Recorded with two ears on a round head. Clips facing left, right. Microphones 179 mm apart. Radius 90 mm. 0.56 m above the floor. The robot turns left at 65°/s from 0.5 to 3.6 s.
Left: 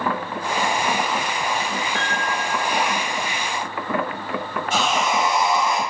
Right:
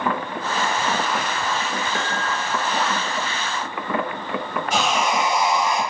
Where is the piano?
60° right, 1.6 m; by 2.9 s 130° right, 1.6 m.